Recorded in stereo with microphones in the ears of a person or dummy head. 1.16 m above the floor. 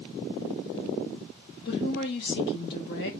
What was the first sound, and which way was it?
A woman speaking, 55° left (ahead or behind).